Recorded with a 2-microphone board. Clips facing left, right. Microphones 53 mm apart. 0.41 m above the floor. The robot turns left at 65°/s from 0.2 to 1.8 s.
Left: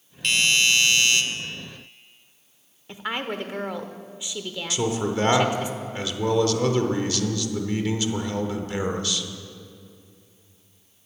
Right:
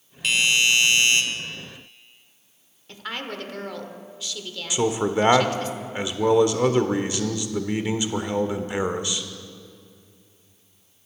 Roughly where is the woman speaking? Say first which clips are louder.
Left 3 dB; centre.